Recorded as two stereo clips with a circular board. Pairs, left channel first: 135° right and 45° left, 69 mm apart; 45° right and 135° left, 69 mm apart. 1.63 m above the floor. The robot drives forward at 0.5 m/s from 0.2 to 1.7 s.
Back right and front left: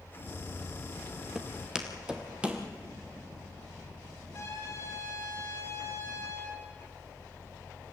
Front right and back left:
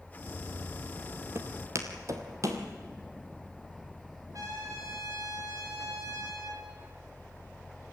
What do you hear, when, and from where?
1.4 s footsteps: 120° left, 2 m; by 2.6 s 110° left, 2.5 m
4.3 s a trumpet: 175° left, 9 m